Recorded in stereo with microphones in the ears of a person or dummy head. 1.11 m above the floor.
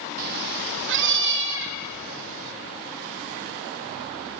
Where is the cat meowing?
45° right (ahead or behind), 0.6 m; by 2.5 s 70° right (ahead or behind), 4 m.